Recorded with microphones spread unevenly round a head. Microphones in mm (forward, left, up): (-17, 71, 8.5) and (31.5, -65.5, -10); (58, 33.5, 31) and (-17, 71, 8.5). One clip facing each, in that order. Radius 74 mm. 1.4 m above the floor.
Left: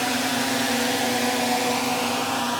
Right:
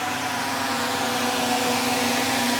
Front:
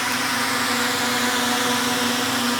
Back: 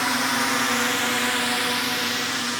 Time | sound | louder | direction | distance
0.0 | a drone | left 3 dB, even | 90° left | ?